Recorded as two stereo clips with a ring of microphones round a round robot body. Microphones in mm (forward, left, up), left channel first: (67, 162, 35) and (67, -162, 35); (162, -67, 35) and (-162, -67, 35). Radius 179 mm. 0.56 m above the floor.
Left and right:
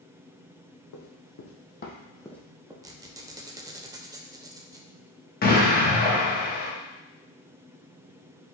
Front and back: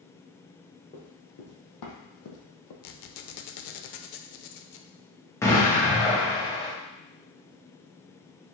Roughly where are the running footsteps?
Left.